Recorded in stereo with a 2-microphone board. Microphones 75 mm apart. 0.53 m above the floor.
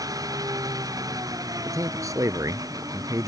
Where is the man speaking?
45° right (ahead or behind).